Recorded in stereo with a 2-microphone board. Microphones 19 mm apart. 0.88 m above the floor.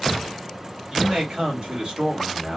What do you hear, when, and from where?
0.9 s a man speaking: 70° right (ahead or behind), 2.5 m